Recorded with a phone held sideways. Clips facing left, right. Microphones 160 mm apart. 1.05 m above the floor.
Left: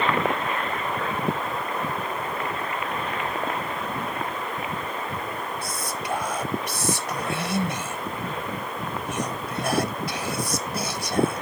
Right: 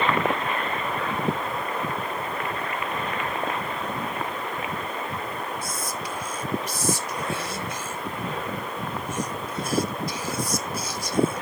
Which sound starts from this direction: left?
Whispering, at 5.6 s.